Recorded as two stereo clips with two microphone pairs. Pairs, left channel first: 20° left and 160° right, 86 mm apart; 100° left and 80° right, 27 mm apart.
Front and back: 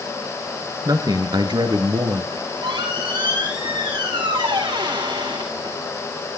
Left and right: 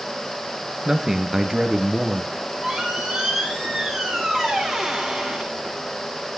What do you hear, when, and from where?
0.8 s a man speaking: 140° right, 2 m; by 2.2 s 160° right, 3.5 m
2.3 s a squeak: 165° right, 6.5 m